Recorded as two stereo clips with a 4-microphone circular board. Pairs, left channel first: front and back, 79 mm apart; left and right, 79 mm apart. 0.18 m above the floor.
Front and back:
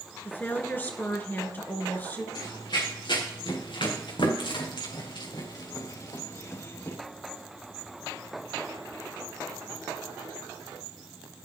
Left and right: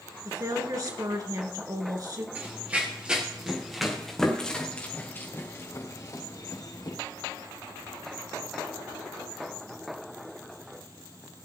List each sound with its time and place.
0.2 s a woman speaking: 60° right, 2 m
2.4 s running footsteps: 20° right, 5 m; by 7.0 s 60° left, 4 m